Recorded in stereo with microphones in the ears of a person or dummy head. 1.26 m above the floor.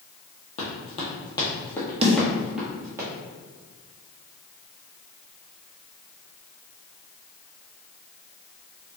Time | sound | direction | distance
0.6 | running footsteps | 35° left (ahead or behind) | 1.7 m
2.0 | a snare drum | 35° right (ahead or behind) | 0.9 m